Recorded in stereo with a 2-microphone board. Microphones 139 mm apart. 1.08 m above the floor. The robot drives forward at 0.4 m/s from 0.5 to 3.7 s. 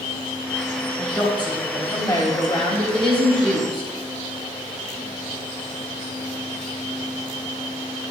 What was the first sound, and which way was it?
A woman speaking, 30° left (ahead or behind).